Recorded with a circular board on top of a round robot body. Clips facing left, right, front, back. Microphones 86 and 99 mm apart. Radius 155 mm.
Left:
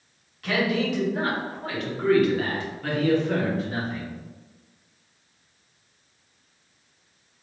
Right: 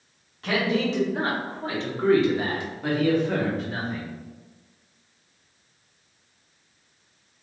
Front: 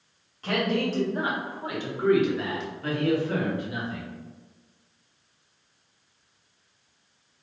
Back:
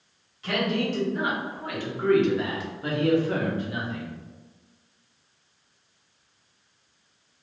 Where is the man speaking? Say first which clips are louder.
Even, even; 35° right, 1.9 m; by 4.1 s 175° left, 1.6 m.